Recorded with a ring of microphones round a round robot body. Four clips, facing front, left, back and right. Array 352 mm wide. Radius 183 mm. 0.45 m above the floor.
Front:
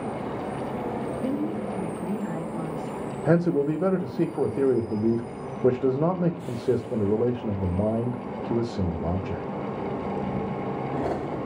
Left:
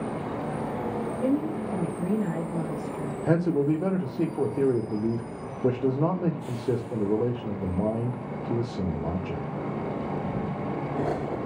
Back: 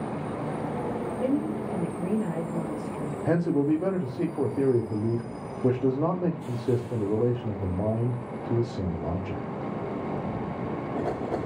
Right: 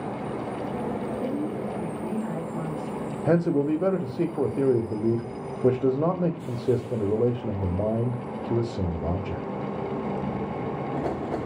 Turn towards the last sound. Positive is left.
turn(degrees=-40)